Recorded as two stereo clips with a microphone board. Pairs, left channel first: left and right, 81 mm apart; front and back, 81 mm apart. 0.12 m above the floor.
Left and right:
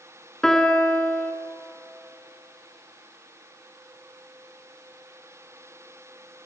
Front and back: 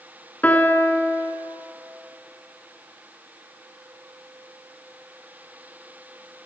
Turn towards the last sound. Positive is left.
turn(degrees=20)